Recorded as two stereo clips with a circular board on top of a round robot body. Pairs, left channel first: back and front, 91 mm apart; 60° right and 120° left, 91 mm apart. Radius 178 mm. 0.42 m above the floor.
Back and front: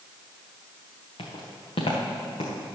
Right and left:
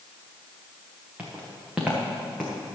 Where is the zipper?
I don't hear a zipper.